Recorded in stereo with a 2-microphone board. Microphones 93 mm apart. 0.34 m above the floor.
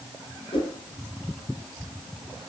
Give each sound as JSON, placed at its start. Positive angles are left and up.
{"t": 0.5, "sound": "a whoosh", "side_deg": 65, "distance_m": 4.0}